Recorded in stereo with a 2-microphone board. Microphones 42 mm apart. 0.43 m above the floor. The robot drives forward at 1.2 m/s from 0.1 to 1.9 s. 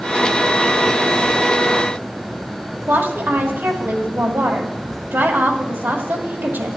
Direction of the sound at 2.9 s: 65° right (ahead or behind).